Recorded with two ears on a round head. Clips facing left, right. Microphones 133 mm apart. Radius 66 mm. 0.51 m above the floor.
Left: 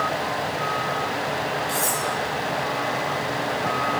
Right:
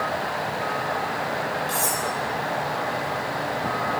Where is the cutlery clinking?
20° right (ahead or behind), 6.5 m.